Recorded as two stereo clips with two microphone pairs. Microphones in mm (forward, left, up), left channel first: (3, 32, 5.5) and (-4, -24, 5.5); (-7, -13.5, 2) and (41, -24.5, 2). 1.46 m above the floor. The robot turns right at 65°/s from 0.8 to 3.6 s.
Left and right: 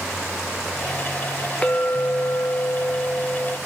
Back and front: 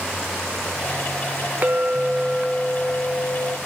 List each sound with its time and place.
1.6 s a clink: 20° left, 0.7 m; by 3.6 s 145° left, 0.7 m